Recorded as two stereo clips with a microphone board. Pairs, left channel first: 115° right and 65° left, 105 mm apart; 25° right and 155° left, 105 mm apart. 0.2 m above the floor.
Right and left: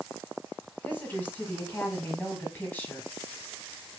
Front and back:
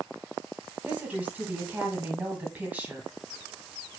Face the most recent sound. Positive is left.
turn(degrees=-155)